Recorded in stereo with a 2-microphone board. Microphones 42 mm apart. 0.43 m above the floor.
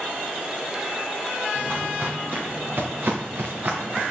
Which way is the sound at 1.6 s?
50° right (ahead or behind).